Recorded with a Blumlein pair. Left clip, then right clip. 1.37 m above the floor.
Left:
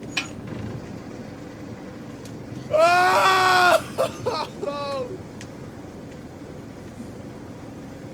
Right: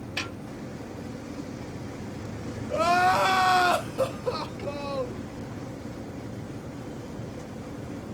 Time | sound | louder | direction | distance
0.2 | a snare drum | left 5 dB | 20° left | 2.5 m
2.7 | crying | left 6 dB | 20° left | 0.6 m